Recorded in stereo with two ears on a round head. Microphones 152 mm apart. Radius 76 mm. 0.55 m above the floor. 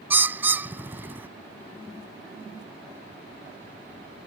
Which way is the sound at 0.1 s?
10° right (ahead or behind).